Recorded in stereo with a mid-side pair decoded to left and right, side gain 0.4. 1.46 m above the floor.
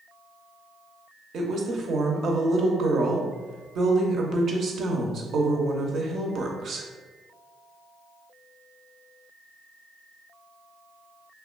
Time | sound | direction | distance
1.3 | a woman speaking | 60° right | 0.6 m